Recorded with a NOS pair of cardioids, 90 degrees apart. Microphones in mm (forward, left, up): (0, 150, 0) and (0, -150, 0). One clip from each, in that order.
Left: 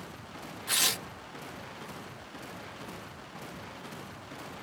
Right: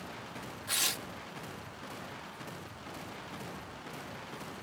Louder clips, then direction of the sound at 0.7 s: Left 4 dB; 20° left.